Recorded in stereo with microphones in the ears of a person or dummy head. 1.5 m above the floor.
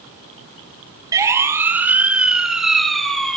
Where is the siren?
20° right (ahead or behind), 3 m; by 3.4 s centre (ahead or behind), 4.5 m.